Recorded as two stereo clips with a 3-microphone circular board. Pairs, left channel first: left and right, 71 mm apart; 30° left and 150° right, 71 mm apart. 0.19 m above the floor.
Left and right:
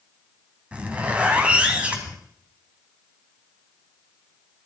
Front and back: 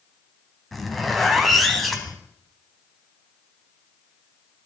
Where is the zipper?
55° right, 1.7 m.